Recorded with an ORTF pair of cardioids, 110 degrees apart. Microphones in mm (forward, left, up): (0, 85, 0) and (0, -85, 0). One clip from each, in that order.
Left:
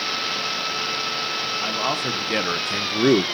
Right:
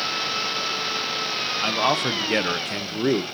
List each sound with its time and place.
1.6 s a man speaking: 25° right, 1.1 m; by 3.2 s 30° left, 0.6 m